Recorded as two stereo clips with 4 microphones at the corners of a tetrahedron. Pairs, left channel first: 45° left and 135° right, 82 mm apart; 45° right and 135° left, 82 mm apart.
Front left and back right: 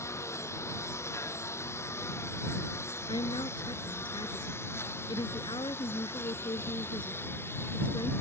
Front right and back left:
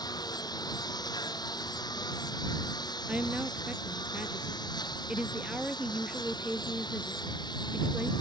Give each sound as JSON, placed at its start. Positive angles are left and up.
{"t": 0.0, "sound": "a lawn mower", "azimuth_deg": -10}
{"t": 3.1, "sound": "a woman speaking", "azimuth_deg": 55}